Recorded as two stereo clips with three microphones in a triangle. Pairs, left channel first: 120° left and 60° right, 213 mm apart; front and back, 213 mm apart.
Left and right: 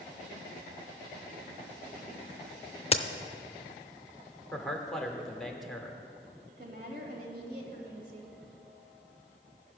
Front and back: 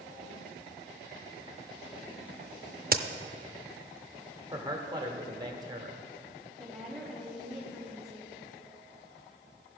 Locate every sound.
2.9 s a crack: 170° left, 0.5 m
4.5 s a man speaking: 155° right, 1.0 m
6.6 s a woman speaking: 90° right, 1.9 m